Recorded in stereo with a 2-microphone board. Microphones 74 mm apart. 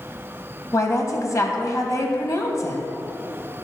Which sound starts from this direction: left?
A woman speaking, at 0.7 s.